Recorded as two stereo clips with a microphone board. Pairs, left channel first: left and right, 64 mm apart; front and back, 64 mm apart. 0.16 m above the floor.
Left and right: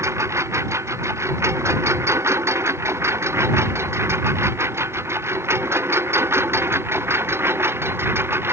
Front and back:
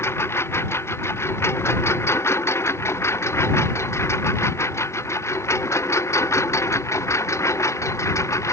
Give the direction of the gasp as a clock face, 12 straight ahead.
No gasp in this recording.